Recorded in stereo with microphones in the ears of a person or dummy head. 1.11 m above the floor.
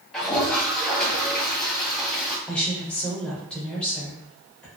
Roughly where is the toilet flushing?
Centre.